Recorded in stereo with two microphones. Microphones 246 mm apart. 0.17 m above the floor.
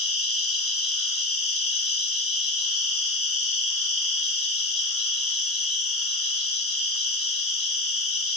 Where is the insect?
65° left (ahead or behind), 1.1 m.